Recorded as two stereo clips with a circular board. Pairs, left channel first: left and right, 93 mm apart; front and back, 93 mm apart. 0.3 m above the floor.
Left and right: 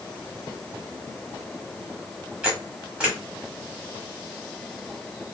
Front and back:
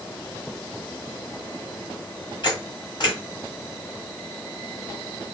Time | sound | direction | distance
2.4 | a camera shutter | 15° right | 1.4 m